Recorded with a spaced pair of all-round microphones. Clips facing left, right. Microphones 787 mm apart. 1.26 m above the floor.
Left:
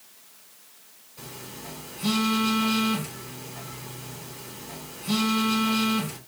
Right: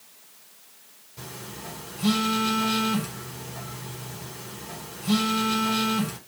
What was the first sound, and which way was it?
A phone buzzing, 50° right (ahead or behind).